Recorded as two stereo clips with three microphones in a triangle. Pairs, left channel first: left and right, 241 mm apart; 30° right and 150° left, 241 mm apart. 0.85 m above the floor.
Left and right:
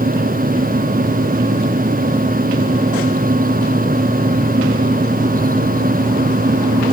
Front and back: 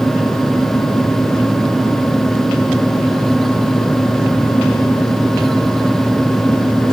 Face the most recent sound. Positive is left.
No sound to turn to.